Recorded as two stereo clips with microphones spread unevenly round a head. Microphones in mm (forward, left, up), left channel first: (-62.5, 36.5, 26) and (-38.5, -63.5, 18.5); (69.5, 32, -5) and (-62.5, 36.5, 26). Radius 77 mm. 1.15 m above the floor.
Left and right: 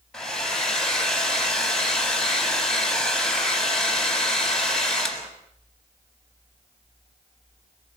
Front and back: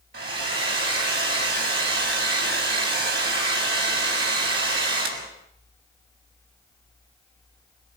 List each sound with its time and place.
0.1 s a hair dryer: 175° right, 6.5 m